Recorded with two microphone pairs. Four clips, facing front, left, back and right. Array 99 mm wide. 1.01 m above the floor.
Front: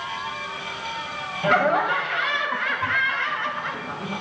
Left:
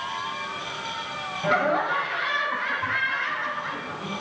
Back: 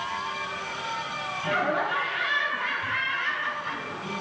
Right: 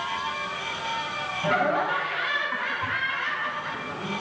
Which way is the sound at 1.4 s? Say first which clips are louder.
Left 1 dB, front 7 dB; straight ahead.